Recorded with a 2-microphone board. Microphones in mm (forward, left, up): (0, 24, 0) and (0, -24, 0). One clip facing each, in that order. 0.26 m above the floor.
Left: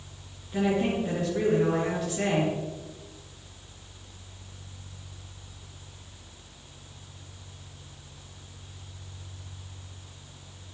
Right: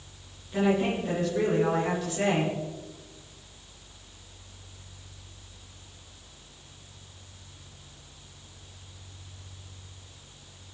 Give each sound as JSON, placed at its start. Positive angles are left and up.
{"t": 0.5, "sound": "a woman speaking", "side_deg": 5, "distance_m": 4.5}